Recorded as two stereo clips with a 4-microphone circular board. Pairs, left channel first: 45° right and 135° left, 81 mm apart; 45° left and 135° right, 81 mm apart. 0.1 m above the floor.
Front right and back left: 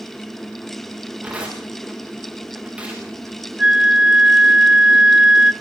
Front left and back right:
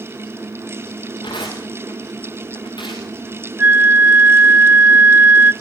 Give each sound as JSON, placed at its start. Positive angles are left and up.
{"t": 1.2, "sound": "tearing paper", "azimuth_deg": 60, "distance_m": 9.0}
{"t": 3.6, "sound": "a flute", "azimuth_deg": -155, "distance_m": 0.9}